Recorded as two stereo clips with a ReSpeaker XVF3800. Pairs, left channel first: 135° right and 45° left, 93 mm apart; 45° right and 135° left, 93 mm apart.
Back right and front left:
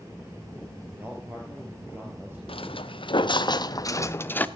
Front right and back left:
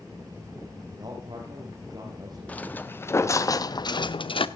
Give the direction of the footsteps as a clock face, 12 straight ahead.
4 o'clock.